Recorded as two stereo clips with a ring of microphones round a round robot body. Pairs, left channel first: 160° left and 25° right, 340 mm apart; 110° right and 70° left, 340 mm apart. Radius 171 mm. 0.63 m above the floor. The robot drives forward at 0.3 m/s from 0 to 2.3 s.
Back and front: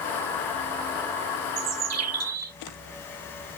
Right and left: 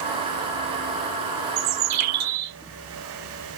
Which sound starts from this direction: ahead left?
A bird, at 1.6 s.